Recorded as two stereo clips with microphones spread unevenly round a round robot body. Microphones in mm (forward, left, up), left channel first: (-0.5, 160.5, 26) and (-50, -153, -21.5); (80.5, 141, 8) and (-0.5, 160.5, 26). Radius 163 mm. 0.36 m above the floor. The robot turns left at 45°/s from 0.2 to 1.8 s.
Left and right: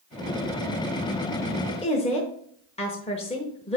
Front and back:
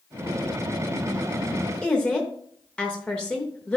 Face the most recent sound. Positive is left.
turn(degrees=15)